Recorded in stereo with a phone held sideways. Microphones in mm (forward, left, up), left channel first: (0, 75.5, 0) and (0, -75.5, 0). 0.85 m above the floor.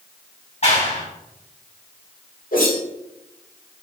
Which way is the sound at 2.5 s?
70° left (ahead or behind).